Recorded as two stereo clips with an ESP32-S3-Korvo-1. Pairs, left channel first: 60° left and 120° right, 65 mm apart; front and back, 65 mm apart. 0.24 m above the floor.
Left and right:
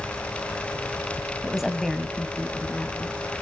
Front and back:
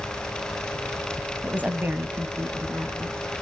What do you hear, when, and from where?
1.4 s a woman speaking: 175° right, 1.0 m; by 3.2 s 125° left, 3 m